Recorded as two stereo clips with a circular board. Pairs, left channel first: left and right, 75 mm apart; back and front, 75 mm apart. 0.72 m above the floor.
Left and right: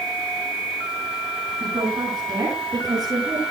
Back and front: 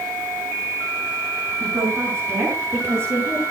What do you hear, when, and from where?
1.6 s a woman speaking: 60° right, 7.5 m; by 3.4 s 50° right, 8.5 m